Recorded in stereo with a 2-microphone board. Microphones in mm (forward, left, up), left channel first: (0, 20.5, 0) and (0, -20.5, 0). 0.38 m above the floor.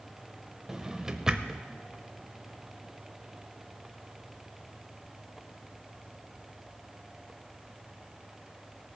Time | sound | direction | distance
0.7 | a drawer | 15° right (ahead or behind) | 0.6 m